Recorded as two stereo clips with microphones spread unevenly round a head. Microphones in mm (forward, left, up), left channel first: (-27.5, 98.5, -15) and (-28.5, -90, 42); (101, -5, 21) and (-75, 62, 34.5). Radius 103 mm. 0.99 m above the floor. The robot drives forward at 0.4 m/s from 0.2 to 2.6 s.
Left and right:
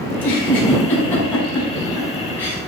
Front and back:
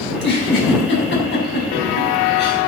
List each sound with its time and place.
0.1 s a giggle: 5° left, 5.5 m